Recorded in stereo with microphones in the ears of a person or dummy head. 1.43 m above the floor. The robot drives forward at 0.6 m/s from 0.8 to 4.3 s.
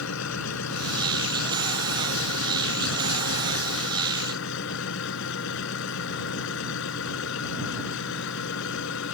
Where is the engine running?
80° left; by 9.1 s 70° left (ahead or behind).